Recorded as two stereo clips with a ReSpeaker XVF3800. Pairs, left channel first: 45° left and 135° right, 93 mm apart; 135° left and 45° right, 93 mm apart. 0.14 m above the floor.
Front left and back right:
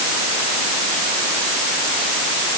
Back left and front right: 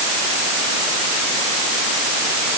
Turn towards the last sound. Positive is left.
No sound to turn to.